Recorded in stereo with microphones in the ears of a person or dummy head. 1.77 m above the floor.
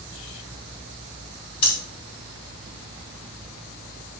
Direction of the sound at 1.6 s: 30° left (ahead or behind).